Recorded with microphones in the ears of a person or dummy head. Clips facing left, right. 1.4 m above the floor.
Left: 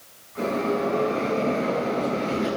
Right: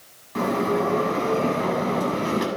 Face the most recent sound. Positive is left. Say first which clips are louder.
# right 2 dB
turn(degrees=-85)